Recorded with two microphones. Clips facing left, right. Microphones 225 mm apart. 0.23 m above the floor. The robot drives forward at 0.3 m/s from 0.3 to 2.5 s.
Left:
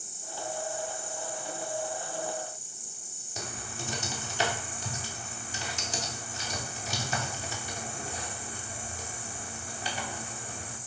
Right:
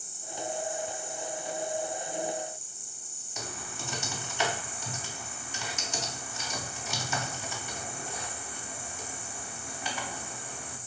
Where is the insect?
40° left (ahead or behind), 1.2 m; by 10.9 s 25° left (ahead or behind), 1.7 m.